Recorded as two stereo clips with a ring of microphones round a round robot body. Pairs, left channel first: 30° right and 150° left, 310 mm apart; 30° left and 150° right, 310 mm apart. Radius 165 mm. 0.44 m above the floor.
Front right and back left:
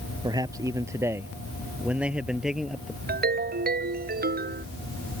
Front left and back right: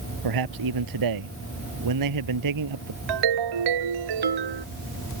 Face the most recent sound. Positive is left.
turn(degrees=-150)